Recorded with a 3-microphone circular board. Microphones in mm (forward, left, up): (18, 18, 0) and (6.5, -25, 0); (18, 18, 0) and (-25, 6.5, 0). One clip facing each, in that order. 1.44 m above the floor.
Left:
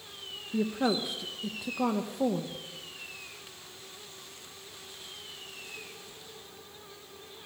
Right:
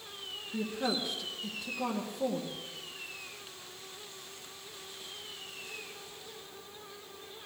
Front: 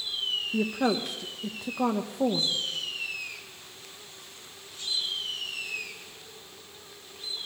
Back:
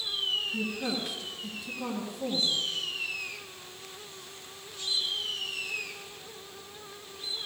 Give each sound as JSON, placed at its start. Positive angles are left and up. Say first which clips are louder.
{"t": 0.5, "sound": "a woman speaking", "louder": "left 5 dB, front 6 dB", "azimuth_deg": 20, "distance_m": 1.0}